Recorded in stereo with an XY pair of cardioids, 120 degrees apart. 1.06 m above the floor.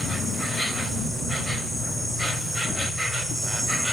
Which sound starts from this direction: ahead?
An insect, at 0.0 s.